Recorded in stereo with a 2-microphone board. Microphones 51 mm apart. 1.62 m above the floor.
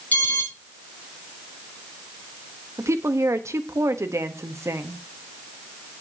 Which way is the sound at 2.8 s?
75° right (ahead or behind).